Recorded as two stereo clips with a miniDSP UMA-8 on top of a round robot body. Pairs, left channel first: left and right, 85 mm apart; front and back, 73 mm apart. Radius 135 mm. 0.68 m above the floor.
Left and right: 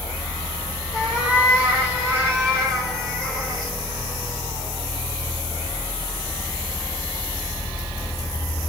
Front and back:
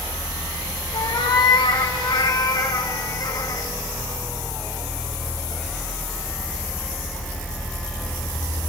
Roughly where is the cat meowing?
Ahead.